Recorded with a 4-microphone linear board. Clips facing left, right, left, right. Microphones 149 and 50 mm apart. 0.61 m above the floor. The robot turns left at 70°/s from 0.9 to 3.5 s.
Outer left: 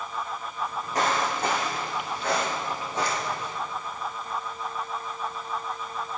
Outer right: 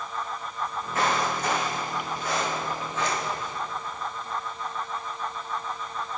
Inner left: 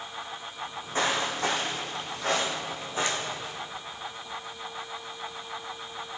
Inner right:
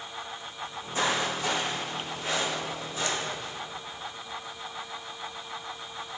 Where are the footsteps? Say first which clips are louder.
Even, inner left 1 dB; 40° left (ahead or behind), 3 m; by 3.5 s 10° left (ahead or behind), 2.5 m.